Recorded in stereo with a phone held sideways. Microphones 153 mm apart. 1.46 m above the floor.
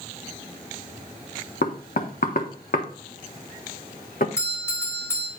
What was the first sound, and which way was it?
Knocking, 70° left (ahead or behind).